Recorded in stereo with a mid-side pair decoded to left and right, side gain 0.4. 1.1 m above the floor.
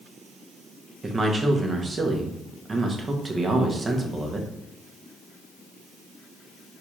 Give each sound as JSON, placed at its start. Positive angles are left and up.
{"t": 1.0, "sound": "a man speaking", "azimuth_deg": -35, "distance_m": 0.9}